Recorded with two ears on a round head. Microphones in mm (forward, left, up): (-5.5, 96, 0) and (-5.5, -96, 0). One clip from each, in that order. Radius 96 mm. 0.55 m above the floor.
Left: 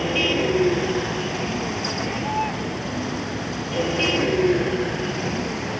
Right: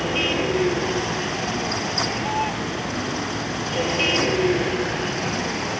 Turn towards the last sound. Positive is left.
turn(degrees=-25)  # may be behind; listen again after turning